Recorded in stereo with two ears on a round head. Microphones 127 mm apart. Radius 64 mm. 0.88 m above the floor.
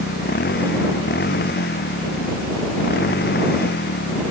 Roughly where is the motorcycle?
Left.